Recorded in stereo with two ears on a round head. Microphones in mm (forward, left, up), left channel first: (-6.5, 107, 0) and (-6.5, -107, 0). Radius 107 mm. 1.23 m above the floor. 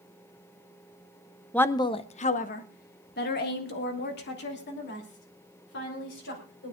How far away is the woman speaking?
About 0.5 m.